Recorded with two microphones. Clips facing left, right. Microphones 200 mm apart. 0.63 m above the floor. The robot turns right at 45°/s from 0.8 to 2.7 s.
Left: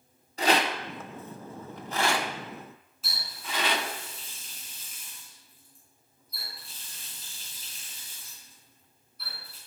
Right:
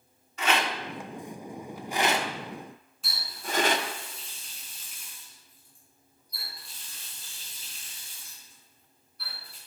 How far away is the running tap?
About 4 m.